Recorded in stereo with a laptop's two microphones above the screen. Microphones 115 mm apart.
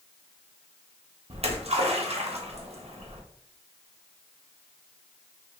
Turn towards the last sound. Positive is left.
turn(degrees=-65)  # may be behind; listen again after turning